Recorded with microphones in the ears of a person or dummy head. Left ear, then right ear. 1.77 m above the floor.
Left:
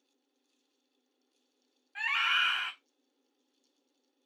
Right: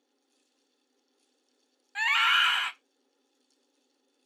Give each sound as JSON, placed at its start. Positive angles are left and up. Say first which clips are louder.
{"t": 1.9, "sound": "a scream", "louder": "right 5 dB", "side_deg": -35, "distance_m": 0.5}